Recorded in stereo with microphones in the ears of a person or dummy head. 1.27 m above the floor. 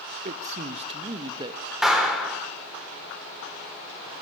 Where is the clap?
Centre (ahead or behind), 4.5 m.